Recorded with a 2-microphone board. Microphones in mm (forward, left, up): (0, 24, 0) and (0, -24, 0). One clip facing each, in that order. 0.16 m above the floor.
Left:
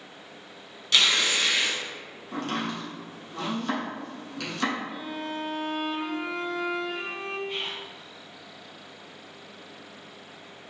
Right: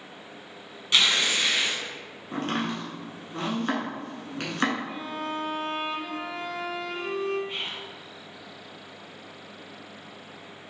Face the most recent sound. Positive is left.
turn(degrees=-30)  # may be behind; listen again after turning